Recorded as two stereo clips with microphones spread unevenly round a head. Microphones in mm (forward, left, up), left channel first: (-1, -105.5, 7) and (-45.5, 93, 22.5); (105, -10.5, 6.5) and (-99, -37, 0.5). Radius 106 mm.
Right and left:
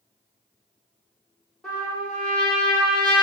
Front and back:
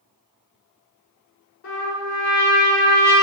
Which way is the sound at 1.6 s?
10° left.